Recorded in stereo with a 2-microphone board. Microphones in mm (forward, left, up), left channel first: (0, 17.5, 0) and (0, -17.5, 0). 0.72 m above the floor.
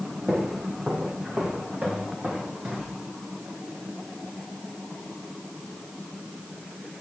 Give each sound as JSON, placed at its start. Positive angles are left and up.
{"t": 0.3, "sound": "footsteps", "side_deg": -35, "distance_m": 5.0}